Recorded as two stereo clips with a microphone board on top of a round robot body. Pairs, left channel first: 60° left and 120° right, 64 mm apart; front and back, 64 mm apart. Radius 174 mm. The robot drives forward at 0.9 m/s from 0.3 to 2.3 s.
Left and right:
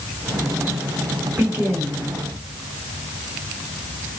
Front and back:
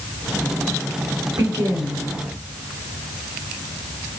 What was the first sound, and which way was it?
A woman speaking, 175° left.